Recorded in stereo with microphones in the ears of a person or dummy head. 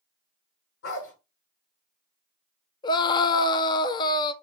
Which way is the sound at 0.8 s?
75° left (ahead or behind).